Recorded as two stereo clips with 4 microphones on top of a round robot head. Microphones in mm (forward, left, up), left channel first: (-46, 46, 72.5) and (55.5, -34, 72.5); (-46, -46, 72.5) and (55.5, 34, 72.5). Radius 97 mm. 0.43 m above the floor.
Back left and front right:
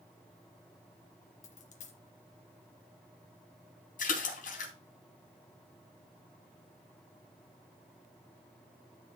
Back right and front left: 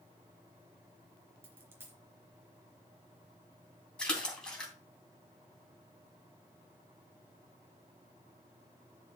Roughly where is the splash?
Behind left.